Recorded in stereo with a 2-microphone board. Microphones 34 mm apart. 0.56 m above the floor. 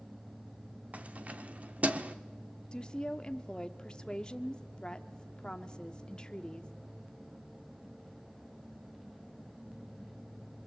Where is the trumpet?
I don't hear a trumpet.